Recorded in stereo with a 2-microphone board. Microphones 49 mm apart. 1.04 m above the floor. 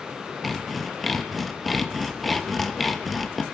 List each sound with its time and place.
0.4 s sawing: centre (ahead or behind), 0.8 m